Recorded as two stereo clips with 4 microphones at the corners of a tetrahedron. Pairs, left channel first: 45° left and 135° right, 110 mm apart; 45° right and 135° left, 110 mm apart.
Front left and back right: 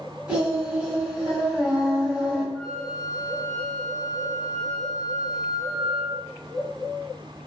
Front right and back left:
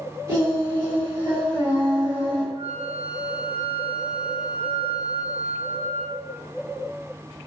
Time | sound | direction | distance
0.3 | singing | 150° left | 1.6 m
2.5 | a flute | 130° left | 0.8 m